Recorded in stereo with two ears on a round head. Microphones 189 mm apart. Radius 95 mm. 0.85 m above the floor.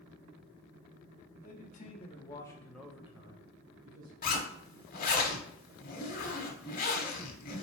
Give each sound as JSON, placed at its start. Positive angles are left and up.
{"t": 1.4, "sound": "a man speaking", "side_deg": 45, "distance_m": 1.3}
{"t": 4.2, "sound": "a zipper", "side_deg": 40, "distance_m": 0.9}